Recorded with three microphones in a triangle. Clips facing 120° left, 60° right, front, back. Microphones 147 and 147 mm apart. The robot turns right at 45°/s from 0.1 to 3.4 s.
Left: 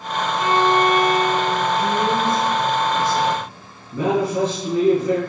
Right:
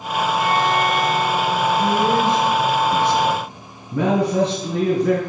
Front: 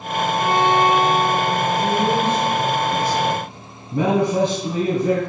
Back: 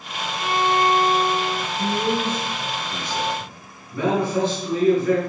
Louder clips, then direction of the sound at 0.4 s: Left 4 dB, front 3 dB; 50° left.